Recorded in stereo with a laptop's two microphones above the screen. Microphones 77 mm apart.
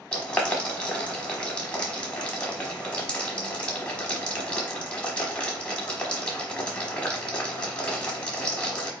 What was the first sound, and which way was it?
Boiling, 15° left (ahead or behind).